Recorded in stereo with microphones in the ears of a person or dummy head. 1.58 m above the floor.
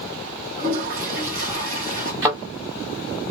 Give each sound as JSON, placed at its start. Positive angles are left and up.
{"t": 0.6, "sound": "a toilet flushing", "side_deg": -10, "distance_m": 1.6}
{"t": 2.2, "sound": "a thud", "side_deg": -15, "distance_m": 1.3}